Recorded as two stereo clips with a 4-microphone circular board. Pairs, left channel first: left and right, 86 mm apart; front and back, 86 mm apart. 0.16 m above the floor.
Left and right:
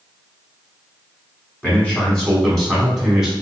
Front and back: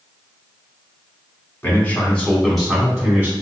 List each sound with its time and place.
1.6 s a man speaking: 35° left, 1.7 m; by 3.3 s 160° right, 1.6 m